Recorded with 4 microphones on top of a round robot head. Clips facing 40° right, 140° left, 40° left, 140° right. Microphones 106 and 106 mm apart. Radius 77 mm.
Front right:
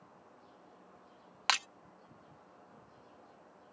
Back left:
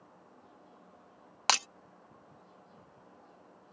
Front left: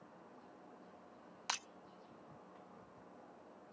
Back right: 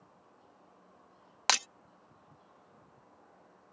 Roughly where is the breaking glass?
Behind.